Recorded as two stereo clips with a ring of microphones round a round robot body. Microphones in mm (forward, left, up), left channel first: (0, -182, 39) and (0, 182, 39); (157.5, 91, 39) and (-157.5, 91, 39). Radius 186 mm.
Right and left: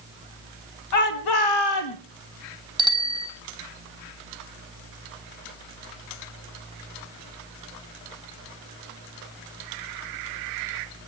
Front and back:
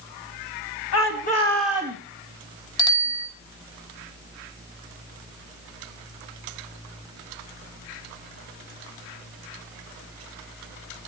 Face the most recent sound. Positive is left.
turn(degrees=10)